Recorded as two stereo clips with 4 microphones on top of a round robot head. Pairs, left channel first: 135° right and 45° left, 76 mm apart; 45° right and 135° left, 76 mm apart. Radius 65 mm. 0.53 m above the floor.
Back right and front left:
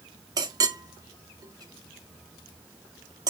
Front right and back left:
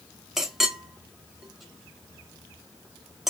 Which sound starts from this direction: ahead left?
A clink, at 0.4 s.